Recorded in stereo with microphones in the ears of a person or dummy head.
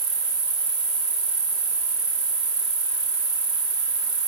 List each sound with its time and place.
0.0 s an insect: 30° right (ahead or behind), 1.3 m